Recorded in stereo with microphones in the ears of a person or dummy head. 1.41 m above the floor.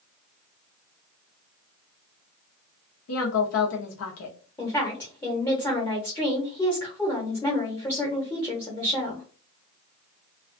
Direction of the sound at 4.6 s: 15° left (ahead or behind).